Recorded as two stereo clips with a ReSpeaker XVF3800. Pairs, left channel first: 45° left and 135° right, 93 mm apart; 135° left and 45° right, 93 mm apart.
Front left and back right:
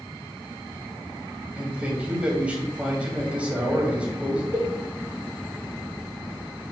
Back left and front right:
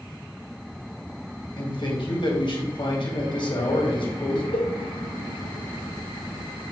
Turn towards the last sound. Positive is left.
turn(degrees=165)